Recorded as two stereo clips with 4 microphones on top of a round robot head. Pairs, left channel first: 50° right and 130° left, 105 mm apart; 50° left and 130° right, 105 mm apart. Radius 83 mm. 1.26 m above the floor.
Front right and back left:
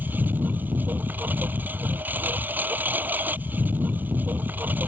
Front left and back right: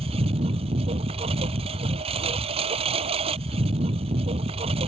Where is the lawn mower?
160° right.